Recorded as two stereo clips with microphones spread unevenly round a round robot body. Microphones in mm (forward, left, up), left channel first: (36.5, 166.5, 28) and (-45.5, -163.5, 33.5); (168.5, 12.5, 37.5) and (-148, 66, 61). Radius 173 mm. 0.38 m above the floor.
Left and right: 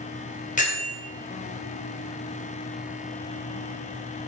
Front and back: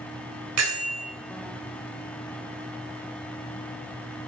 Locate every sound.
0.6 s a bell: 140° left, 2.5 m